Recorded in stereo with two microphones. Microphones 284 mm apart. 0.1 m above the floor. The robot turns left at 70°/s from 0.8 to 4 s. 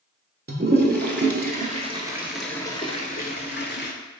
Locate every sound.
0.5 s a toilet flushing: 35° right (ahead or behind), 0.5 m; by 3.9 s 35° left (ahead or behind), 0.5 m